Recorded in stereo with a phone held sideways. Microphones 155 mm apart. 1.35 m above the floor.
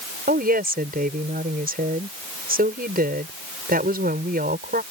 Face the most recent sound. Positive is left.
turn(degrees=-75)  # may be behind; listen again after turning